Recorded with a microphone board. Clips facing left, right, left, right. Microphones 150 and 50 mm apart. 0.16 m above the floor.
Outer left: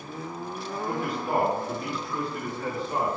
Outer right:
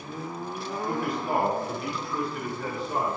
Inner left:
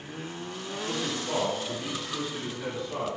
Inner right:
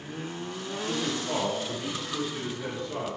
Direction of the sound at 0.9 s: 5° left (ahead or behind).